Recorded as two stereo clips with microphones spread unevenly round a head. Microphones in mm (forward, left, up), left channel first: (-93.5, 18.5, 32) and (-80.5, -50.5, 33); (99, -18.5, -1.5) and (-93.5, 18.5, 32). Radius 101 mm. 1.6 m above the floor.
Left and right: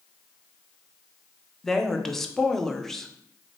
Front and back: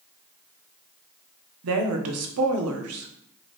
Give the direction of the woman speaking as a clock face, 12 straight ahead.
6 o'clock.